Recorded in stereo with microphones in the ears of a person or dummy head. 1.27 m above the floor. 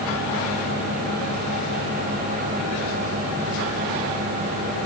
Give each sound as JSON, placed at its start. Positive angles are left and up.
{"t": 0.0, "sound": "a fan", "side_deg": -50, "distance_m": 1.5}